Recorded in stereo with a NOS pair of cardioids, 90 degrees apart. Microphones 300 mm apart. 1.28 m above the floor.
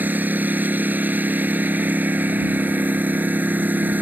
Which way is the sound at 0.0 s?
5° right.